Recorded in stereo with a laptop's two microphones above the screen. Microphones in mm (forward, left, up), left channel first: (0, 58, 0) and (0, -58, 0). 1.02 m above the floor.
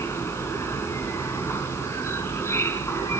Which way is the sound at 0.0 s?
25° left (ahead or behind).